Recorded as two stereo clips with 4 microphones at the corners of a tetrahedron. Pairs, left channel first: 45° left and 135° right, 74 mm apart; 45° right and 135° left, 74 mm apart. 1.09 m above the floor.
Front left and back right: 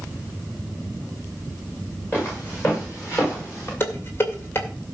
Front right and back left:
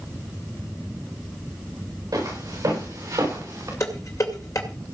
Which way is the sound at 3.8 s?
10° right.